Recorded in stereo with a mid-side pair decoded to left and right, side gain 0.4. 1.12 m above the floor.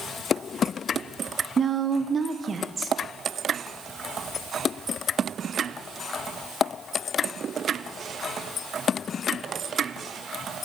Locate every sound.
1.6 s a woman speaking: 45° right, 0.7 m